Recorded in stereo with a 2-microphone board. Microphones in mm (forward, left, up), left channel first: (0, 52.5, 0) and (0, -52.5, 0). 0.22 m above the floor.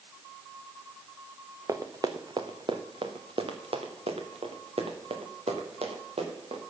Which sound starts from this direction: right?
Running footsteps, at 1.7 s.